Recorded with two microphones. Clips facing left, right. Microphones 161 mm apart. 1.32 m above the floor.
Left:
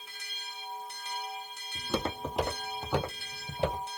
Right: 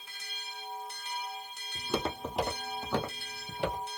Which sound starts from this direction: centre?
Footsteps, at 1.8 s.